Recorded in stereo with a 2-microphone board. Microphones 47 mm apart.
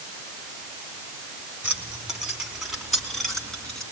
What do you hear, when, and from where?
1.6 s keys jangling: 25° right (ahead or behind), 4 m; by 3.8 s 15° left (ahead or behind), 4.5 m